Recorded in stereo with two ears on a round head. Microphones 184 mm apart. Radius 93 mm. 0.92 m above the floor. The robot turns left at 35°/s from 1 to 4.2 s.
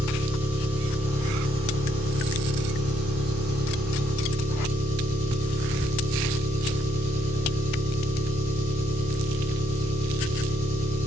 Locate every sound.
0.0 s an engine running: 30° right, 7 m; by 11.1 s 140° right, 7 m